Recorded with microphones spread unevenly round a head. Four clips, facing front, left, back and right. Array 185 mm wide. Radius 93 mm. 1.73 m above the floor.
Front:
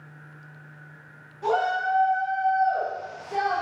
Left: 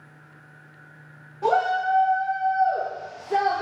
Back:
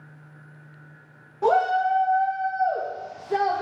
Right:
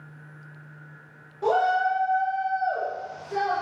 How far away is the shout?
About 5.5 m.